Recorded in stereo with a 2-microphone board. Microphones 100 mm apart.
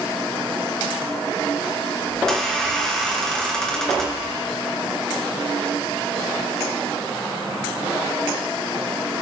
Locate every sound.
2.1 s a squeak: 5° left (ahead or behind), 2.5 m